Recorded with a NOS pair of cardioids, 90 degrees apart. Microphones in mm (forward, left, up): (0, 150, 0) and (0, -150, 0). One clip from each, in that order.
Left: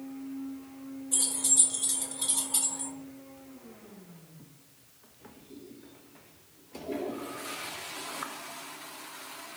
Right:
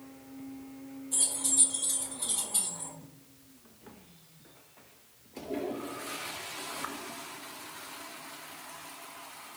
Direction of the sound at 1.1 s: 25° left.